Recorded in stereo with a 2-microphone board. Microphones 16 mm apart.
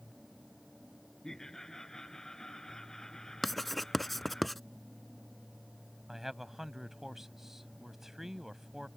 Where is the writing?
5° left (ahead or behind).